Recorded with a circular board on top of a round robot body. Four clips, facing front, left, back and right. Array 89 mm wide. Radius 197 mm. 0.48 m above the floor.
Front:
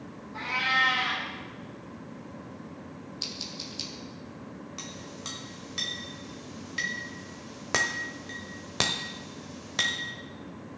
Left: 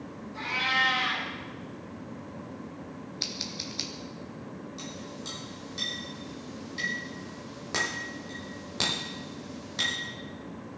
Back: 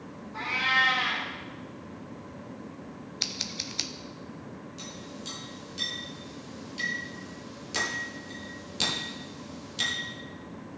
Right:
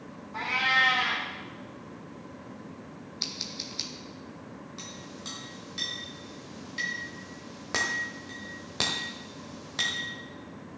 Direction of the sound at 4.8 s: 15° right.